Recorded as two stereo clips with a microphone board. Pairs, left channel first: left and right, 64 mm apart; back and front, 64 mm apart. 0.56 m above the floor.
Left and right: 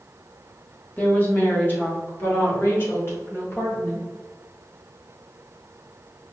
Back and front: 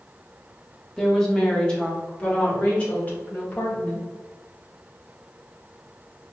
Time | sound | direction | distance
1.0 | a woman speaking | 105° left | 1.0 m